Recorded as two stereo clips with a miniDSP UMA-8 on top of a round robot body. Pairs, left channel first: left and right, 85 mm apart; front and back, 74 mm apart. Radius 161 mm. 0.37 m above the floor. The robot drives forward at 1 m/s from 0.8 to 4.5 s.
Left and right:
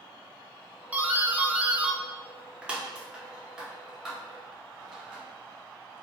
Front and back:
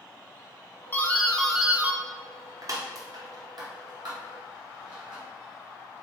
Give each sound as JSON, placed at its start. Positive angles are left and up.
{"t": 0.9, "sound": "a doorbell", "azimuth_deg": -30, "distance_m": 1.3}